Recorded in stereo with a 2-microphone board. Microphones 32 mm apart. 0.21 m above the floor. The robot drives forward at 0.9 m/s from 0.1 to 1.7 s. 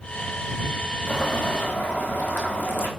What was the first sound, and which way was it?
Boiling, 80° left.